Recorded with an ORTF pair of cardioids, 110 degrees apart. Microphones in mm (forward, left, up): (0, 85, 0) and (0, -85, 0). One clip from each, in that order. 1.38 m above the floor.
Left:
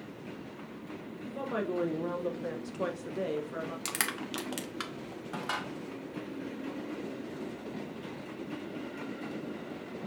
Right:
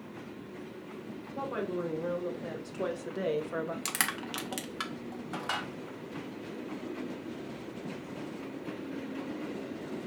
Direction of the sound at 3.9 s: Straight ahead.